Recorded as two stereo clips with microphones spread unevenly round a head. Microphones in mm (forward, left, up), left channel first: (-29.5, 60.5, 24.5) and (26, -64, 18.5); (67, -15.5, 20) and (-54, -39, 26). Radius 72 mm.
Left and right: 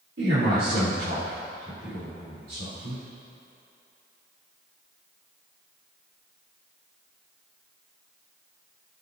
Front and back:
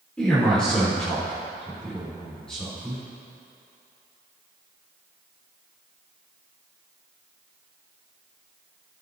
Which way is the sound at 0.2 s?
70° right.